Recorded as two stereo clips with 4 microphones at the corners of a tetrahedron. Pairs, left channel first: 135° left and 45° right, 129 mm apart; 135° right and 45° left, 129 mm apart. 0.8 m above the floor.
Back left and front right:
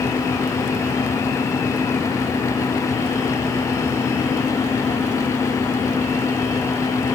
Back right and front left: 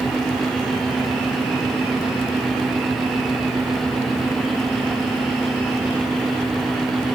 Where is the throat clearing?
I don't hear throat clearing.